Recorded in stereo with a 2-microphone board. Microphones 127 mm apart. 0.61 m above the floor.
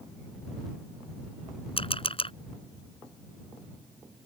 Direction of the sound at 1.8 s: 45° left (ahead or behind).